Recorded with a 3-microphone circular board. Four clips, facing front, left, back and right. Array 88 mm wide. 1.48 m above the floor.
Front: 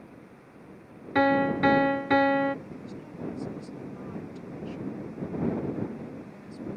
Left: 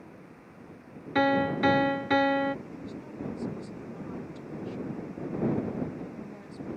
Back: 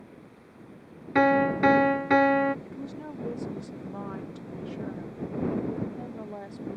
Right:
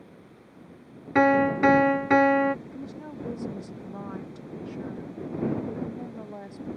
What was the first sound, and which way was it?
A piano, 110° right.